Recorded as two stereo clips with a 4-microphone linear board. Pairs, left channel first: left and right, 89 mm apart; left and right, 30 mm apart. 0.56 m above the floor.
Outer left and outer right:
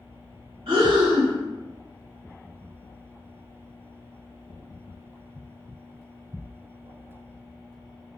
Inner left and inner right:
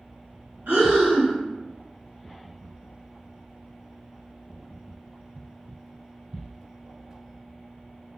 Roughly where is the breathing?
Right.